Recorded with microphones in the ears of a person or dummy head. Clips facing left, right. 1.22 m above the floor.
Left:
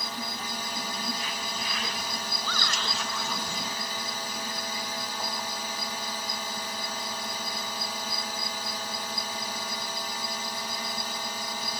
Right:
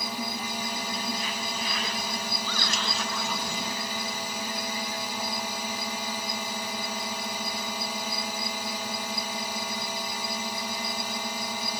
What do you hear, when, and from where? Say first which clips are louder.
0.0 s a drone: right 3 dB; 10° right (ahead or behind)
2.4 s a shout: right 2 dB; 55° left (ahead or behind)